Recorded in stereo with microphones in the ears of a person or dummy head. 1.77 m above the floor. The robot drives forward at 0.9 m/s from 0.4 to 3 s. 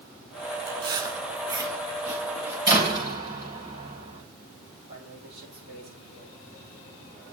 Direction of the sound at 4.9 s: 35° right (ahead or behind).